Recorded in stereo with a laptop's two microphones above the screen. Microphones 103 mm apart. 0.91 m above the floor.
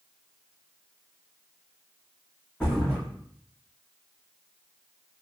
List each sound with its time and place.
2.6 s a thud: 10° left (ahead or behind), 3 m